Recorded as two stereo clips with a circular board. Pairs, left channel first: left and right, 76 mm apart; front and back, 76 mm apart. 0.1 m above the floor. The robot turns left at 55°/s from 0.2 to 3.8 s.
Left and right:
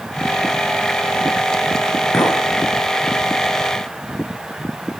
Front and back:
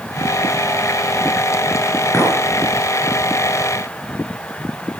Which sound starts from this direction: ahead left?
A clink, at 2.1 s.